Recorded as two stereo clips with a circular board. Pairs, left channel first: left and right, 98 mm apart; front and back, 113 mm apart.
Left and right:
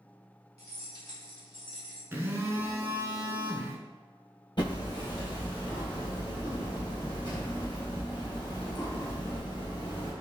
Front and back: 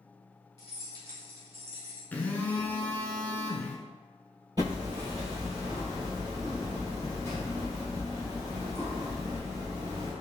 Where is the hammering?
130° left, 1.5 m.